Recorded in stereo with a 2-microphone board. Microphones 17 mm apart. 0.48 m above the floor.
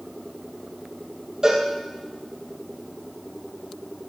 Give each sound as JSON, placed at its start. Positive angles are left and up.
{"t": 1.4, "sound": "a cowbell", "side_deg": -35, "distance_m": 4.0}